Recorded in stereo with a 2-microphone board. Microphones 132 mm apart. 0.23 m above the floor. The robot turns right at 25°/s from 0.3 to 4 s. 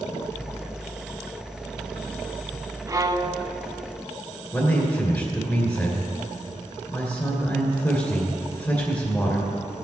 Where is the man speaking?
20° left (ahead or behind), 2.5 m.